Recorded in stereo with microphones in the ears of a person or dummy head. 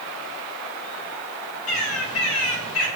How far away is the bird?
About 2.5 m.